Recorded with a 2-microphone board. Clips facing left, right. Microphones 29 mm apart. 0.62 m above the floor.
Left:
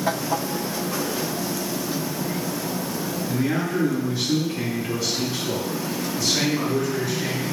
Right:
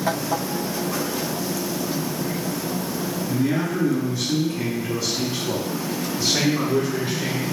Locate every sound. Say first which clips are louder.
3.3 s a man speaking: right 1 dB; 50° left (ahead or behind), 1.1 m; by 7.4 s 35° right (ahead or behind), 1.8 m